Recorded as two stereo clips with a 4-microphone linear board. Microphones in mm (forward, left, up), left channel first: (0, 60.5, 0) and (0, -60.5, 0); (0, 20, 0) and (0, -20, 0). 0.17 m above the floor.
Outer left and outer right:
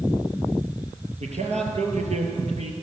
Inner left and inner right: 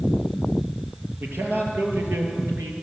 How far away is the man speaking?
About 4.5 m.